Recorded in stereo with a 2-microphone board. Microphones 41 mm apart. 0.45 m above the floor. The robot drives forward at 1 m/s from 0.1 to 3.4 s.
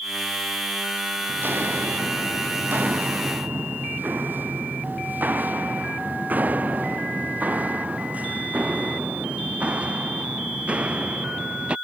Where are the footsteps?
55° right (ahead or behind); by 11.8 s 30° right (ahead or behind).